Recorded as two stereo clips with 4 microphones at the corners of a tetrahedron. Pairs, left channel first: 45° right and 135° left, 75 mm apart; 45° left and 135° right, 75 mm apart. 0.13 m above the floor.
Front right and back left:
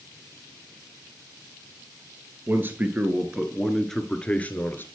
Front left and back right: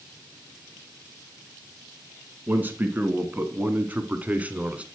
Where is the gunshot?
No gunshot in this recording.